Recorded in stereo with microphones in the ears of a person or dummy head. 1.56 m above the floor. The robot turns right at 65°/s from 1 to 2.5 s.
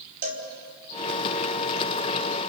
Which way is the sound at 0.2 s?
50° right (ahead or behind).